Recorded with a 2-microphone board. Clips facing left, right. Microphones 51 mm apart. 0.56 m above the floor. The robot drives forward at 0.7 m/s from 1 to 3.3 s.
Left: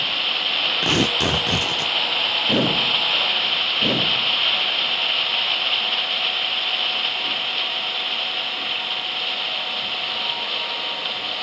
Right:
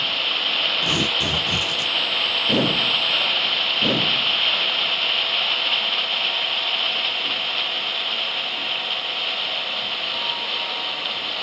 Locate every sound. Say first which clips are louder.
0.8 s tearing paper: left 2 dB; 65° left (ahead or behind), 0.5 m; by 1.9 s 40° left (ahead or behind), 0.7 m